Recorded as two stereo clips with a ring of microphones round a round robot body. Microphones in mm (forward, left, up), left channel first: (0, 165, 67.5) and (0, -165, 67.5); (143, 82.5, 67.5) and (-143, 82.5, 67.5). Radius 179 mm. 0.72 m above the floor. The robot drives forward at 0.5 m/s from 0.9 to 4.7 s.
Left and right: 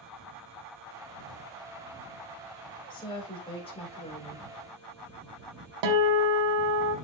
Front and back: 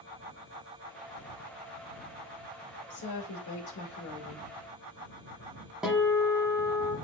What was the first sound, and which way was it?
A woman speaking, 15° left.